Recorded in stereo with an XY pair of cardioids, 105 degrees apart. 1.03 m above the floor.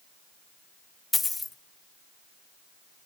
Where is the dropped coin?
25° left, 1.1 m.